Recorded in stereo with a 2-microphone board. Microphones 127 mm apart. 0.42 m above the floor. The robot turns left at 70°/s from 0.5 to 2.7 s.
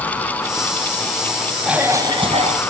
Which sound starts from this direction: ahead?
A cough, at 1.6 s.